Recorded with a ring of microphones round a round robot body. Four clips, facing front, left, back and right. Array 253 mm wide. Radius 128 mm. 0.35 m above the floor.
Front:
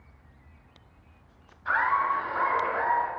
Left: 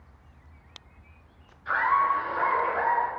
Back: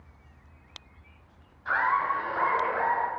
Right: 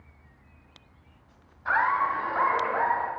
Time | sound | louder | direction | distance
1.6 | laughter | left 1 dB, front 1 dB | 85° right | 2.5 m